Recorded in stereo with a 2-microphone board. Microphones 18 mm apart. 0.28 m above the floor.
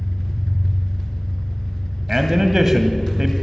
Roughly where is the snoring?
I don't hear snoring.